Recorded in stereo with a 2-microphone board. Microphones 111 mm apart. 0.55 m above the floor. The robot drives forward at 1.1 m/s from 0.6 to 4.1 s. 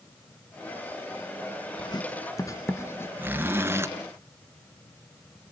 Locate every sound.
1.8 s writing: 45° left (ahead or behind), 1.1 m; by 3.1 s 20° left (ahead or behind), 2.5 m
3.2 s a zipper: 15° right (ahead or behind), 2.5 m; by 3.9 s 25° right (ahead or behind), 1.7 m